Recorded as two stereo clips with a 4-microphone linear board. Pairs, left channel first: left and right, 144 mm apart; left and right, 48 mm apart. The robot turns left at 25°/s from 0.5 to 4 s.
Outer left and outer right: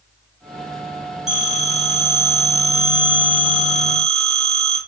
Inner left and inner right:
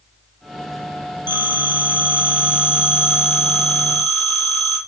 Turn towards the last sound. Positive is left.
turn(degrees=170)